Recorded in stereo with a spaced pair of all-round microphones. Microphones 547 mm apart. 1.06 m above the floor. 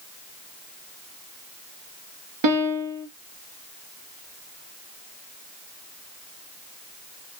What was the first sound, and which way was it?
A piano, 50° right (ahead or behind).